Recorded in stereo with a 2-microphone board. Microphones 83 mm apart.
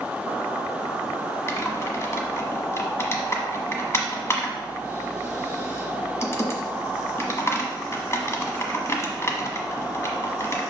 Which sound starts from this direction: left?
Typing on a keyboard, at 1.5 s.